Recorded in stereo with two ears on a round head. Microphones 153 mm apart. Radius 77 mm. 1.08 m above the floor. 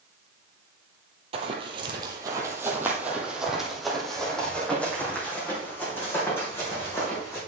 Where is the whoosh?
I don't hear a whoosh.